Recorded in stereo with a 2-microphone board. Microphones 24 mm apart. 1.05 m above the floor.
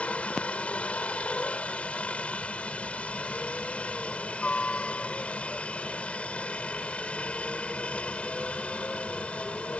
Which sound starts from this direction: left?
A helicopter, at 0.0 s.